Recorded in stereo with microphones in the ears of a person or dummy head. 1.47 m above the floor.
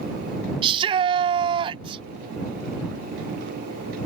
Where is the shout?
30° right (ahead or behind).